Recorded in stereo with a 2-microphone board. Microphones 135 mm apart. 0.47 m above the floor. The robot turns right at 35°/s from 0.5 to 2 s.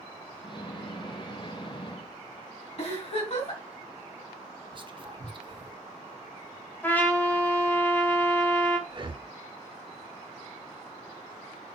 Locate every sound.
2.8 s a giggle: 50° left (ahead or behind), 4 m
4.7 s whispering: 35° right (ahead or behind), 1.2 m
6.8 s a trumpet: 15° left (ahead or behind), 1.6 m
8.9 s breathing: 35° right (ahead or behind), 0.6 m